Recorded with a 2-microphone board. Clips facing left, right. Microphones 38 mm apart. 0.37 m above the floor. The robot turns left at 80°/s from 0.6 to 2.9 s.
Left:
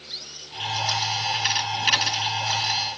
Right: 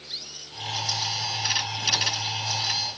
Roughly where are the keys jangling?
No keys jangling in this recording.